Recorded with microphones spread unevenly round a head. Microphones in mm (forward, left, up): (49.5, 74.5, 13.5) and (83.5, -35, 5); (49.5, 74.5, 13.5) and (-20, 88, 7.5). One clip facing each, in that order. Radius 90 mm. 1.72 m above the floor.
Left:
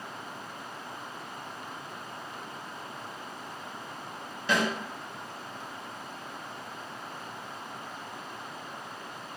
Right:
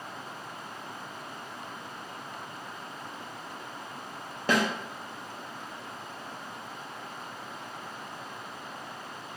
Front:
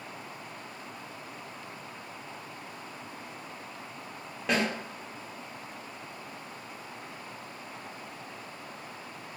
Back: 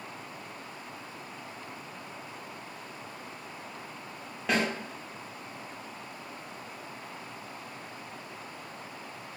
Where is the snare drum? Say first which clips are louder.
Right 2 dB, even; 95° right, 0.6 m.